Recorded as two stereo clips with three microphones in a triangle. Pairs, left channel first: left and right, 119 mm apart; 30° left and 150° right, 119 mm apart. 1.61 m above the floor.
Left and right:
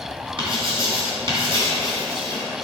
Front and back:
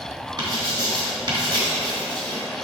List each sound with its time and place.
0.4 s writing: 115° right, 2.5 m